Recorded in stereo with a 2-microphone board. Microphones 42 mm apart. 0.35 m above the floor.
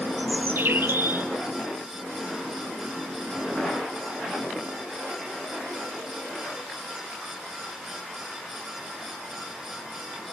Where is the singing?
No singing in this recording.